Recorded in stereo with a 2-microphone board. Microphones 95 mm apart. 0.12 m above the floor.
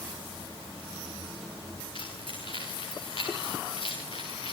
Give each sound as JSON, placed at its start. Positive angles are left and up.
{"t": 1.9, "sound": "keys jangling", "side_deg": 55, "distance_m": 8.5}